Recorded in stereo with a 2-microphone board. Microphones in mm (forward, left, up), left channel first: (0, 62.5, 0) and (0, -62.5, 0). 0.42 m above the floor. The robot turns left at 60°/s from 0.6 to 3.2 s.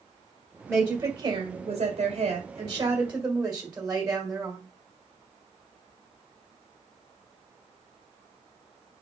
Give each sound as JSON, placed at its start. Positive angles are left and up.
{"t": 0.7, "sound": "a woman speaking", "azimuth_deg": -20, "distance_m": 1.9}